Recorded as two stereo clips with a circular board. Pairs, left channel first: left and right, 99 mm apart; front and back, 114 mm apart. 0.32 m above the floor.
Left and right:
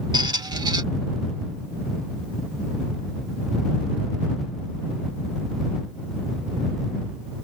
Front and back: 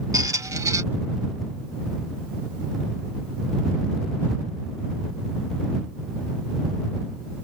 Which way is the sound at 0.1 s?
125° right.